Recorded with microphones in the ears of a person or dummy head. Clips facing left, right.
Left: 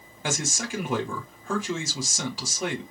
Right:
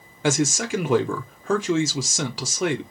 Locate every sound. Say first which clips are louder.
0.2 s a man speaking: right 9 dB; 50° right (ahead or behind), 0.8 m